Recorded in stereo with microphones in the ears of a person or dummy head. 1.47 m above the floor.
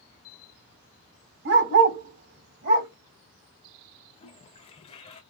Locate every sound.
1.4 s a dog barking: 65° right (ahead or behind), 3.5 m; by 2.9 s 60° right (ahead or behind), 2.5 m
4.2 s a toilet flushing: 30° left (ahead or behind), 1.0 m